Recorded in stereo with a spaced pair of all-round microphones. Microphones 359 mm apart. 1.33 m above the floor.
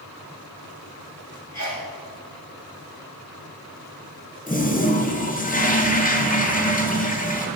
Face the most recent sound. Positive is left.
turn(degrees=25)  # may be behind; listen again after turning